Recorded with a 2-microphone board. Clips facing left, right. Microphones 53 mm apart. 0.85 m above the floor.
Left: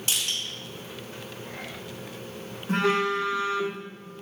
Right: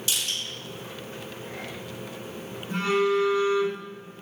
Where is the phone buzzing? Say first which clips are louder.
Right 1 dB; 85° left, 0.6 m.